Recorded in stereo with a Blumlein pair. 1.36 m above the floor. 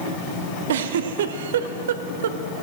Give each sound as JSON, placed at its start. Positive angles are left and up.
{"t": 0.7, "sound": "a giggle", "azimuth_deg": -60, "distance_m": 0.6}